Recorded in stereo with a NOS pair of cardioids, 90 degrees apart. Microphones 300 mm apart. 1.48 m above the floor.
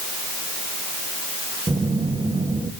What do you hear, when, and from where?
1.7 s a phone buzzing: 15° right, 1.5 m